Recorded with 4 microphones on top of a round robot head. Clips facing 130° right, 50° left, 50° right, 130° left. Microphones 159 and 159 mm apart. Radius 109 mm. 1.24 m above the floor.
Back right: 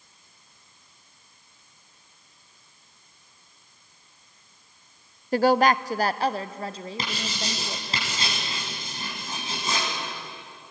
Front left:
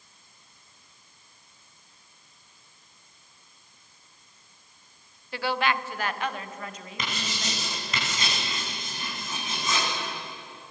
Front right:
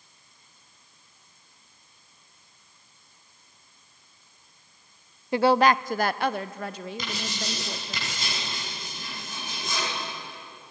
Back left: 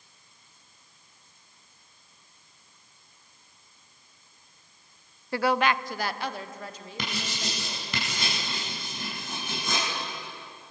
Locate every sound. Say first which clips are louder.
5.3 s a woman speaking: back right 8 dB, front right 5 dB; 110° right, 0.5 m; by 8.0 s 70° right, 2 m
7.0 s writing: even, back left 4 dB; 165° left, 7 m